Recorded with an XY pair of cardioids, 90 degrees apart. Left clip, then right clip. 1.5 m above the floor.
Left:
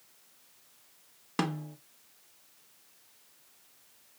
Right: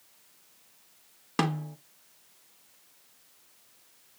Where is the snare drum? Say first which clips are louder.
Right 4 dB; 20° right, 1.3 m.